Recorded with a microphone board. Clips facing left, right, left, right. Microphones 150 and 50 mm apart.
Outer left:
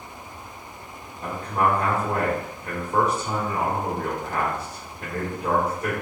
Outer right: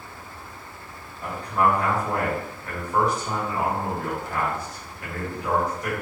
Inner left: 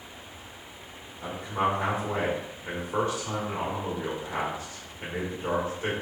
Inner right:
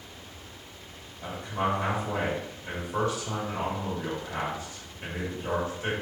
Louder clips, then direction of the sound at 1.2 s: Outer right 1 dB, inner left 2 dB; 40° left (ahead or behind).